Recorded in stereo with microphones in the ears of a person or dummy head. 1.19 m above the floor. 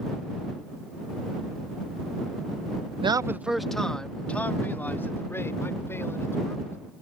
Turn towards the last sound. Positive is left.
turn(degrees=15)  # may be behind; listen again after turning